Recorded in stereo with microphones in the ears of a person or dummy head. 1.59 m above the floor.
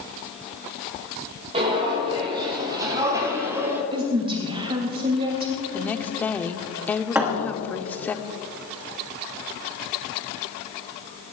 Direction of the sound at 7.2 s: 10° right (ahead or behind).